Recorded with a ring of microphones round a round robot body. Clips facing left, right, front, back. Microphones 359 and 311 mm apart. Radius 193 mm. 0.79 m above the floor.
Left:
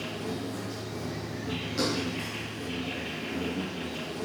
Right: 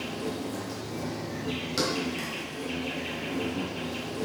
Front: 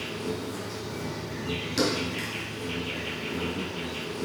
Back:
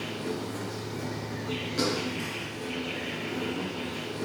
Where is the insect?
80° right, 4 m.